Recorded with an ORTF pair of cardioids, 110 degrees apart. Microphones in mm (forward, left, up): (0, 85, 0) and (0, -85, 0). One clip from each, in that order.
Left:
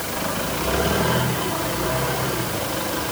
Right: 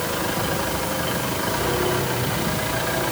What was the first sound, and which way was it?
Only background noise.